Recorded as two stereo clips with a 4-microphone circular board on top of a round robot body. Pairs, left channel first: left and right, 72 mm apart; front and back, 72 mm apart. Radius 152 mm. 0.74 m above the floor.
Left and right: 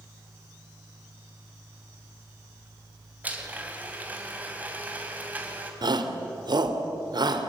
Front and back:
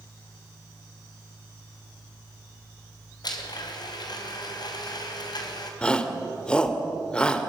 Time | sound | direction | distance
3.2 | a blender | 20° right | 3 m
5.8 | a shout | 75° right | 3 m